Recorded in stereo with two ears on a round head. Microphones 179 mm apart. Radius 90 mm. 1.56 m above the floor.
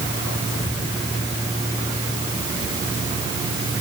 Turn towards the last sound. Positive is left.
No sound to turn to.